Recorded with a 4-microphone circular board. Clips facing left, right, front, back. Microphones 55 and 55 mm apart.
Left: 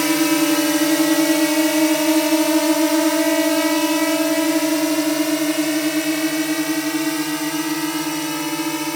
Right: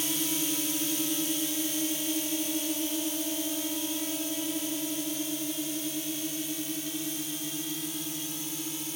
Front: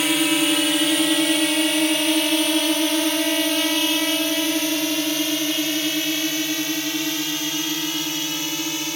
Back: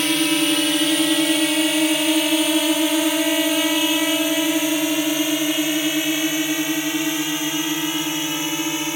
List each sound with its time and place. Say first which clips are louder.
0.0 s a drone: left 16 dB, even; 85° left; by 9.0 s 115° left